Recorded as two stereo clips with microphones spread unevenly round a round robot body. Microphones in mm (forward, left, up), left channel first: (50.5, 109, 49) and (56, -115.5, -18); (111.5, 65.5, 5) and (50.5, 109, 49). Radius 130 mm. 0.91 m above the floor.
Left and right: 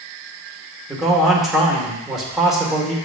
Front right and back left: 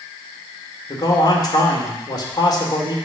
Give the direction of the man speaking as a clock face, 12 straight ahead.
12 o'clock.